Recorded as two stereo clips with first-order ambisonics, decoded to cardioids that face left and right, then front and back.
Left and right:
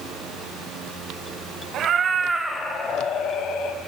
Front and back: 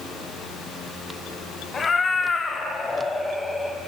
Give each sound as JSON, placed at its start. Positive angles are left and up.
{"t": 1.7, "sound": "a cat meowing", "azimuth_deg": -65, "distance_m": 1.0}